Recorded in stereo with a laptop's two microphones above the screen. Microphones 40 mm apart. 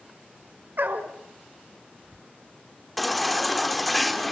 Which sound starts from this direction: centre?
A baby crying, at 3.0 s.